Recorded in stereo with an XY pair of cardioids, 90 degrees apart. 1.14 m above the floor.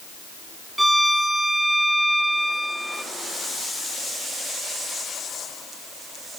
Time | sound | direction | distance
0.8 | a violin | 10° right | 0.9 m